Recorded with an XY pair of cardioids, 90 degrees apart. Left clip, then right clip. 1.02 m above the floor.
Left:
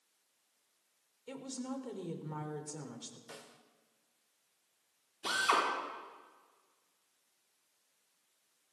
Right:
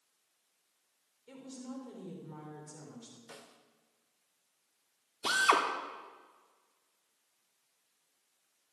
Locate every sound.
1.3 s a woman speaking: 60° left, 3.5 m
3.3 s a snare drum: 10° left, 1.9 m
5.2 s a drill: 50° right, 3 m